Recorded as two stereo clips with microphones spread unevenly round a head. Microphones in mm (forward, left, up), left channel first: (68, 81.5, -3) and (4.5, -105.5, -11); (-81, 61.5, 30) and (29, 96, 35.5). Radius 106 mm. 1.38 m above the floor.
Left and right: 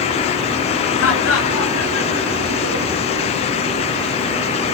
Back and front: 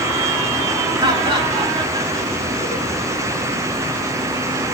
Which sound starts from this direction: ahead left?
Laughter, at 1.0 s.